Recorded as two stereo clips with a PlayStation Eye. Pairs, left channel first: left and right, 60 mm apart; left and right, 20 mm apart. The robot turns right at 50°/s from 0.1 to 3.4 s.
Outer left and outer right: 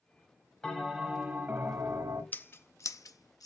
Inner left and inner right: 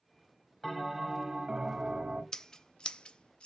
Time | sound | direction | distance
0.6 | a bell | 165° left | 2 m
2.3 | scissors | 30° left (ahead or behind) | 0.6 m